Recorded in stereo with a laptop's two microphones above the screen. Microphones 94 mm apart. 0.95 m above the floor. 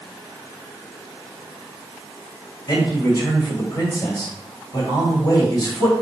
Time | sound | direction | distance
2.7 | a man speaking | 40° left (ahead or behind) | 1.7 m